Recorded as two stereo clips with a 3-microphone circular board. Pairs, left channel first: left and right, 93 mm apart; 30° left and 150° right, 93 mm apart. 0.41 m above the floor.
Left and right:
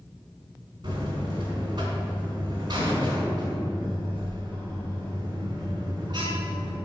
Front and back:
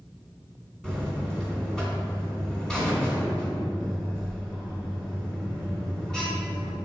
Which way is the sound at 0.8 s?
55° right.